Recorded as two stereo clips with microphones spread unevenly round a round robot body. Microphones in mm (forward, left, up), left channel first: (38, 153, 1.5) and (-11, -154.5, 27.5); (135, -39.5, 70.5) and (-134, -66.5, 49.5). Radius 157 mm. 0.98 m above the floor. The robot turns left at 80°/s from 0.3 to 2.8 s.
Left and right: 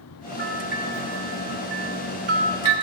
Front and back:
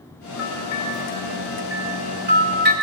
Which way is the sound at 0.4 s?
50° left.